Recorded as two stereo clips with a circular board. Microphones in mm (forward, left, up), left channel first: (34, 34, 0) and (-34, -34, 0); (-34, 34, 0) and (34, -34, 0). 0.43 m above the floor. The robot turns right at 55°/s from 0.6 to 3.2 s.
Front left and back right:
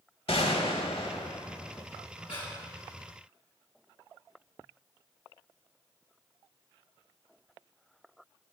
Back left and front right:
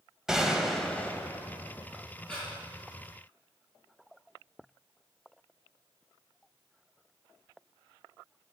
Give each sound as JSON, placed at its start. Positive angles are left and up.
{"t": 0.3, "sound": "a gunshot", "azimuth_deg": 40, "distance_m": 0.9}
{"t": 2.3, "sound": "breathing", "azimuth_deg": 50, "distance_m": 4.5}